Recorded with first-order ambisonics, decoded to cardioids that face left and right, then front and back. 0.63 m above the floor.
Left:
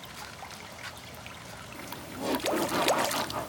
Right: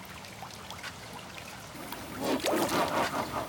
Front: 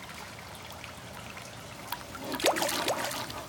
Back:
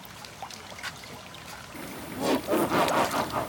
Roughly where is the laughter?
Behind.